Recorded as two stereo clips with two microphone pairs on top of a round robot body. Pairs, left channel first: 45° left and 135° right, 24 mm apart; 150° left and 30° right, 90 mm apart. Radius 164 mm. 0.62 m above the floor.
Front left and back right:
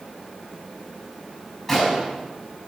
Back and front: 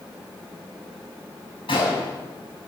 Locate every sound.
1.7 s a gunshot: 125° left, 5.5 m